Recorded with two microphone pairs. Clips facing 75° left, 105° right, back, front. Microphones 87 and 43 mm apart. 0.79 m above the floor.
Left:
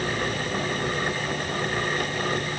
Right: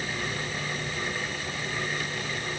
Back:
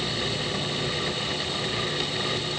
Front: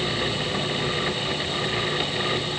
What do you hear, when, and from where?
Only background noise.